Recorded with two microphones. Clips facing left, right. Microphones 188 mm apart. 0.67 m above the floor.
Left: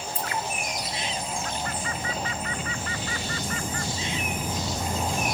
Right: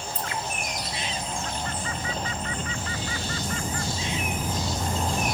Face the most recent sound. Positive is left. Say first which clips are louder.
# left 1 dB
turn(degrees=-20)  # may be behind; listen again after turning